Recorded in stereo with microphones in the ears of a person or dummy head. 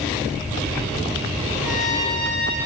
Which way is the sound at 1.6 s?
70° right (ahead or behind).